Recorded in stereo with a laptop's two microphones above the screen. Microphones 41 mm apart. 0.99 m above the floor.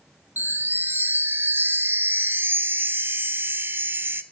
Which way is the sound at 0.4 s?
65° right (ahead or behind).